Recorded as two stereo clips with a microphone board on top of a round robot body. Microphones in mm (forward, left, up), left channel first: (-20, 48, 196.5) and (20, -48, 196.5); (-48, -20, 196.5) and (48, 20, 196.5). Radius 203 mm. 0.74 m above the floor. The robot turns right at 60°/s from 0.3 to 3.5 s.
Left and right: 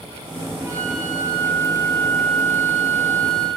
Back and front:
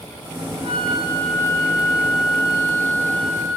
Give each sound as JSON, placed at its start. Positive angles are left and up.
{"t": 0.6, "sound": "a flute", "azimuth_deg": -140, "distance_m": 7.0}